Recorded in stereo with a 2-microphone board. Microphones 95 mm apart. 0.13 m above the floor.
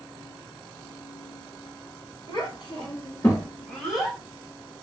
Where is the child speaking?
50° left (ahead or behind), 1.5 m; by 4.2 s 5° left (ahead or behind), 1.3 m.